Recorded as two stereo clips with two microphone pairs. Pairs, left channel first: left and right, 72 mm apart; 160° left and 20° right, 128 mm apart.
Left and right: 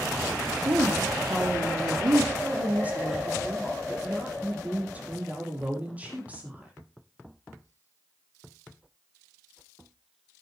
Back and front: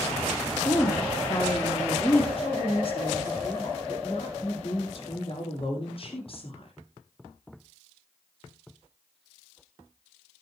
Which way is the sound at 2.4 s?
160° right.